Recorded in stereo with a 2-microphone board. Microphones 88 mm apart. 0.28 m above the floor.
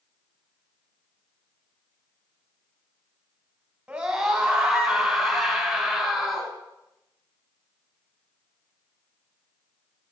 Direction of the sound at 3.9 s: 10° right (ahead or behind).